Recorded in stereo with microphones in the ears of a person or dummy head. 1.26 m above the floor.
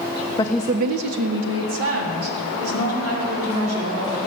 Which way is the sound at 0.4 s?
25° left (ahead or behind).